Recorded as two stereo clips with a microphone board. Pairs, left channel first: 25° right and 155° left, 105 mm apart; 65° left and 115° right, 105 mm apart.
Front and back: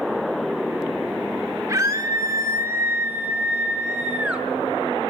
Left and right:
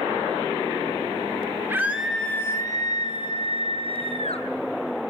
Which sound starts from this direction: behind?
A scream, at 1.7 s.